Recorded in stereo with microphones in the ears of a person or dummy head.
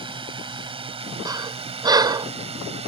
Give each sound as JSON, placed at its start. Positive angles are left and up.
{"t": 0.0, "sound": "a drone", "side_deg": -25}
{"t": 1.2, "sound": "breathing", "side_deg": -15}